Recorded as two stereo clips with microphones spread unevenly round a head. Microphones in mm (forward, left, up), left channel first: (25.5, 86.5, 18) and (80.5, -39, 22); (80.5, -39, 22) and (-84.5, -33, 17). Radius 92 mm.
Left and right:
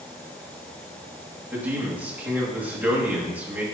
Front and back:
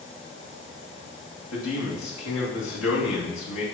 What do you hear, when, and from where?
1.5 s a man speaking: 10° left, 2 m